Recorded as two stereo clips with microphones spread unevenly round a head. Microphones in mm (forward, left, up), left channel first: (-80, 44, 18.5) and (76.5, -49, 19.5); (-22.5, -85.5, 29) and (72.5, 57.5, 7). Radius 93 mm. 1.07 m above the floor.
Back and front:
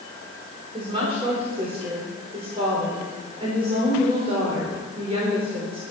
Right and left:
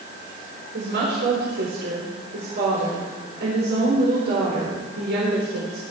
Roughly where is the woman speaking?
Ahead left.